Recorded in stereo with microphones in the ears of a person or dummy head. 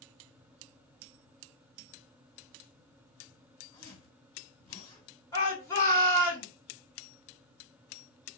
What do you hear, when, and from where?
3.7 s a zipper: 25° left (ahead or behind), 3 m
5.3 s a shout: 20° left (ahead or behind), 2 m